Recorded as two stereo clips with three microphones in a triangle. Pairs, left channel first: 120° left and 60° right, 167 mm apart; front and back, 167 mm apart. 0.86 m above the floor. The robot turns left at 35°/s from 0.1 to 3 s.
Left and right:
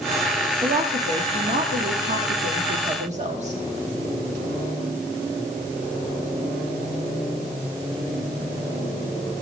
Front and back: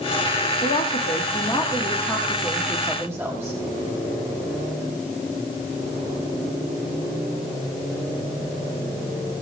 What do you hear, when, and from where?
0.6 s a woman speaking: 25° right, 1.6 m; by 3.6 s 105° right, 1.6 m